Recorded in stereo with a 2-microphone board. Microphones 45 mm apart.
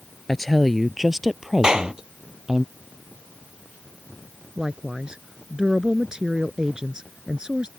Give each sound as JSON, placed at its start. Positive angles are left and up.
{"t": 0.3, "sound": "a woman speaking", "side_deg": 5}
{"t": 1.6, "sound": "a clap", "side_deg": -15}
{"t": 4.6, "sound": "a woman speaking", "side_deg": -15}